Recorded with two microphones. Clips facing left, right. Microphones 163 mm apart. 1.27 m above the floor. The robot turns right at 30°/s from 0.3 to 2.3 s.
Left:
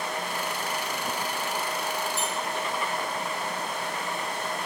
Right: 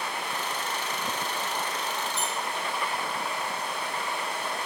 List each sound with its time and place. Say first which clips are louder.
2.2 s a squeak: left 1 dB; 50° left (ahead or behind), 6 m; by 2.3 s 55° left (ahead or behind), 6 m